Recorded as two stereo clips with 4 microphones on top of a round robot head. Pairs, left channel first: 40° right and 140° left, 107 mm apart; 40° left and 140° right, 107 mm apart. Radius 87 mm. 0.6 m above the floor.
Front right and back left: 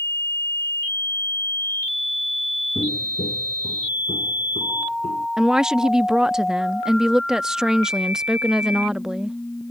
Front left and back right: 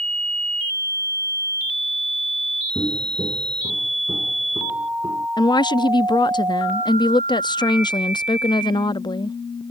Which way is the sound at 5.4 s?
55° left.